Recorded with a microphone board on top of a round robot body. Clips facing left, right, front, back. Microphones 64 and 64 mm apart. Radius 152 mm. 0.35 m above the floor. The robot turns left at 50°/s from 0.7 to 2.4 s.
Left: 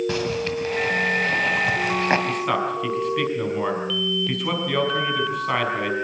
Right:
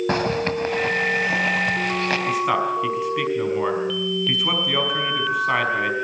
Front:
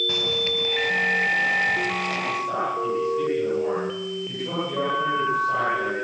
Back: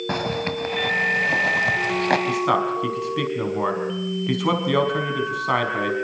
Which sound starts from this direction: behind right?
A zipper, at 0.1 s.